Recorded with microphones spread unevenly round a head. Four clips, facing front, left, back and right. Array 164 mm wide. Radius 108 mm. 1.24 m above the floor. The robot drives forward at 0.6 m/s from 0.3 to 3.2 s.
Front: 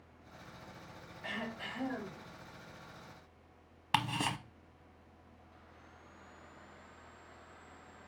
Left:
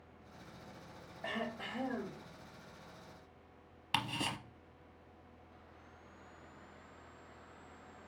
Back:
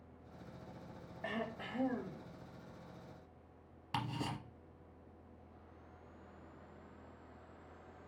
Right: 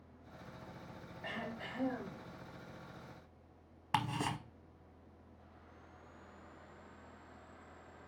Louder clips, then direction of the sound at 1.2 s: Left 3 dB, even; 135° left.